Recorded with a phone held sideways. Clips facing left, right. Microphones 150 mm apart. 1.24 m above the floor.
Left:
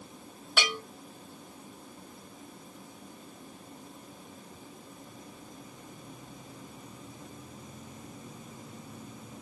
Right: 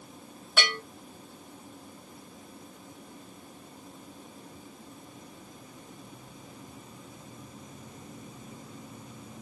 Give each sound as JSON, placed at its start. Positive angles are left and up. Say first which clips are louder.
{"t": 0.6, "sound": "a bell", "louder": "right 1 dB", "side_deg": 10, "distance_m": 1.8}